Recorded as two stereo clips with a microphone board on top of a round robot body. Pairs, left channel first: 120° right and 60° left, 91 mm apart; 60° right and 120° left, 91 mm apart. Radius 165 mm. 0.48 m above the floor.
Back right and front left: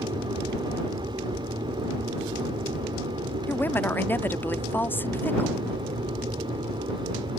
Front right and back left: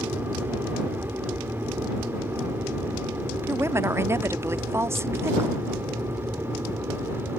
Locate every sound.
0.0 s an aircraft: 55° left; by 7.4 s 60° left
3.5 s a woman speaking: 175° left